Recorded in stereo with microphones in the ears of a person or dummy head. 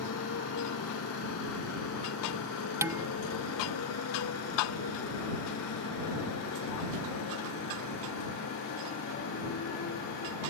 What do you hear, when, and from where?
0.0 s a motorcycle: 75° left (ahead or behind); by 10.5 s 65° left (ahead or behind)
2.8 s dishes clattering: 10° right (ahead or behind)